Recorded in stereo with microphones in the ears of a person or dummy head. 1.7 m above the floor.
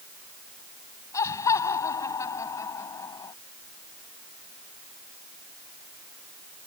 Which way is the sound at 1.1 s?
20° left (ahead or behind).